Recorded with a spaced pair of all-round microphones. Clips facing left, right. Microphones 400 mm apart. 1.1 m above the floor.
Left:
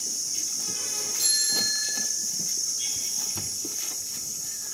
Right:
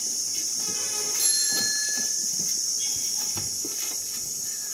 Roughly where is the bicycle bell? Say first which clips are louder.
Even; right.